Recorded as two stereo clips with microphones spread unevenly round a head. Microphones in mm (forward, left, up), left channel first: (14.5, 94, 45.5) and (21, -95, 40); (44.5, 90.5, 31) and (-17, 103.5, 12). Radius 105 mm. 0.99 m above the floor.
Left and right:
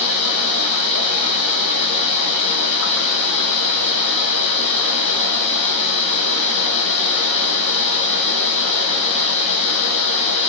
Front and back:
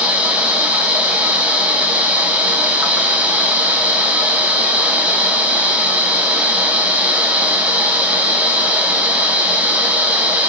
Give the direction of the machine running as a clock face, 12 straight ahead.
9 o'clock.